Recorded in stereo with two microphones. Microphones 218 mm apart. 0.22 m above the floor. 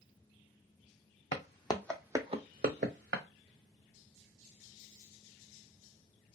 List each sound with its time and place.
1.3 s footsteps: 40° left (ahead or behind), 0.7 m; by 3.2 s 65° right (ahead or behind), 0.9 m